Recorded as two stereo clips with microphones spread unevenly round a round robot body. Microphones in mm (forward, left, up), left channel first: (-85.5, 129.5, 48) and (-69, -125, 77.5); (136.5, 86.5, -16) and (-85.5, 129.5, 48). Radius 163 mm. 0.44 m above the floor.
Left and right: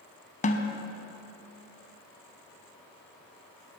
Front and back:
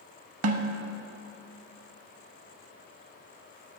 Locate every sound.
0.4 s a snare drum: 160° left, 0.7 m